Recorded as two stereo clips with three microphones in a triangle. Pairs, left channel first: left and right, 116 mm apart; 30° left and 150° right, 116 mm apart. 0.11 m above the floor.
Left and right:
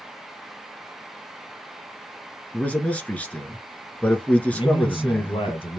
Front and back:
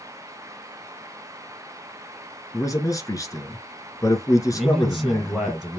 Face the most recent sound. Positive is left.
turn(degrees=115)